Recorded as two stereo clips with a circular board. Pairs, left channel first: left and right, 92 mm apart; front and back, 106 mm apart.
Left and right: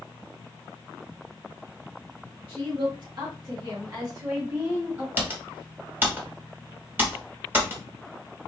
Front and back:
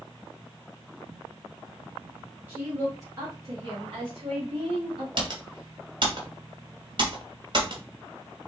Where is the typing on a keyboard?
155° right, 1.7 m.